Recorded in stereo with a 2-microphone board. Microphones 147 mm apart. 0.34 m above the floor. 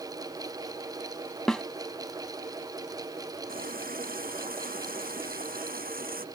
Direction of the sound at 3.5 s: 85° right.